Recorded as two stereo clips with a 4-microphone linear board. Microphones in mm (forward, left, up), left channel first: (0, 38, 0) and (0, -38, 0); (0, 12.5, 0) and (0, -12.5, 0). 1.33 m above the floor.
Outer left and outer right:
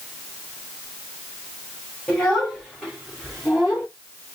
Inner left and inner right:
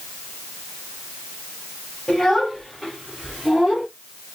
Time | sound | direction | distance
2.1 | a child speaking | 10° left (ahead or behind) | 3.5 m